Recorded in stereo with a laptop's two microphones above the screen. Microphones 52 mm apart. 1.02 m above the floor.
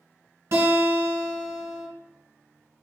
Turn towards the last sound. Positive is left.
turn(degrees=-60)  # may be behind; listen again after turning